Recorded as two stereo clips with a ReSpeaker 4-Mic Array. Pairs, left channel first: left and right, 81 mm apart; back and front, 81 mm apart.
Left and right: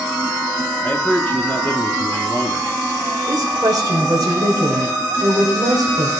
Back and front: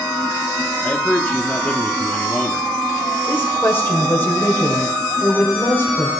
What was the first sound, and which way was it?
A man speaking, 130° left.